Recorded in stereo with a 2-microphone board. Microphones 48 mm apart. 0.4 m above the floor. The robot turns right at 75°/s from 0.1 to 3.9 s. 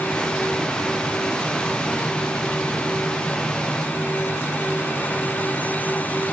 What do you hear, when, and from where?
Only background noise.